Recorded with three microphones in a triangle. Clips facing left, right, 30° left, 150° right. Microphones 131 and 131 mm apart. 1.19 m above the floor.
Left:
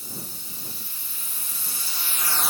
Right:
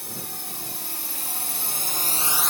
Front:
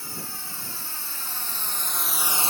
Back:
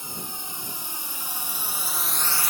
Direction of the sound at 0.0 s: 80° right.